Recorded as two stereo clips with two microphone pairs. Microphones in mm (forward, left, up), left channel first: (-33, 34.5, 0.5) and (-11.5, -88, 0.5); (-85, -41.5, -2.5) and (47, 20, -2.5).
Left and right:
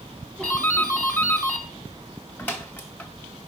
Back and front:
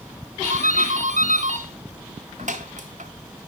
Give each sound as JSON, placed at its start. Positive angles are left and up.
{"t": 0.4, "sound": "a doorbell", "azimuth_deg": 25, "distance_m": 2.0}